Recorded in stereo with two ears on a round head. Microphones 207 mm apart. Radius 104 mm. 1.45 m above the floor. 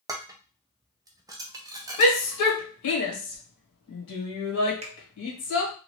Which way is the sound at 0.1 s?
15° right (ahead or behind).